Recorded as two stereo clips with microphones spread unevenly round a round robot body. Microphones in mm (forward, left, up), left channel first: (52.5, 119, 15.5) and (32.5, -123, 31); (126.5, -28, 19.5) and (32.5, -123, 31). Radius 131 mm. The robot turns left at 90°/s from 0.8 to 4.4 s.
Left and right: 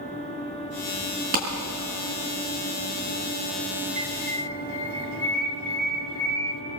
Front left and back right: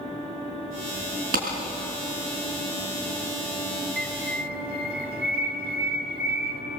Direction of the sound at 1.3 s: 150° right.